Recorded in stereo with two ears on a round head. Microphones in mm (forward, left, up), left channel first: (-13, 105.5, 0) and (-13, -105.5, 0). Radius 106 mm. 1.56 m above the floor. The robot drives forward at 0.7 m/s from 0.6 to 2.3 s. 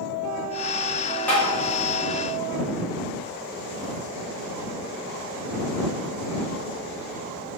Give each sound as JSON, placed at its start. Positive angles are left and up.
{"t": 1.3, "sound": "tapping", "side_deg": 10, "distance_m": 1.7}